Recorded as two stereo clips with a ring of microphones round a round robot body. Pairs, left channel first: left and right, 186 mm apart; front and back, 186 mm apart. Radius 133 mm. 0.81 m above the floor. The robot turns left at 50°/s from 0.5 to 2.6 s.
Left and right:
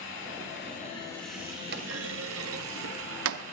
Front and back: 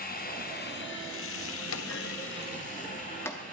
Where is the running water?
40° left, 2 m; by 3.5 s 65° right, 2 m.